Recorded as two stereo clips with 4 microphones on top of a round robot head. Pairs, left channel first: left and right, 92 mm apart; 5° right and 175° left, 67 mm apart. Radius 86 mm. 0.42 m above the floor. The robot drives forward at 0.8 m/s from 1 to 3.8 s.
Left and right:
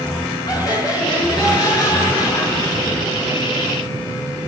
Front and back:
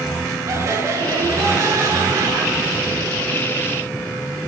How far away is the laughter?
About 8 m.